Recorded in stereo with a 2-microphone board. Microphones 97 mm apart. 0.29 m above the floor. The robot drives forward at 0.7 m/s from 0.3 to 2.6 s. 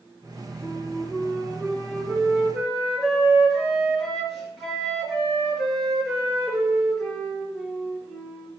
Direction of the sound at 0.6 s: Centre (ahead or behind).